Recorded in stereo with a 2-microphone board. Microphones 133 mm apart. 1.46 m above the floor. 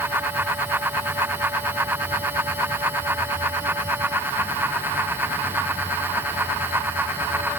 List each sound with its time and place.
Only background noise.